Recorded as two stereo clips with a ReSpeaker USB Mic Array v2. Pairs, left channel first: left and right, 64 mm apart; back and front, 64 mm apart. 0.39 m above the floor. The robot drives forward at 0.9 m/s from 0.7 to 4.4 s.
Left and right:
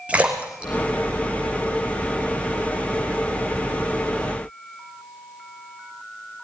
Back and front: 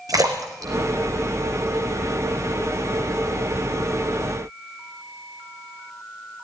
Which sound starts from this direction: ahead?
A splash, at 0.1 s.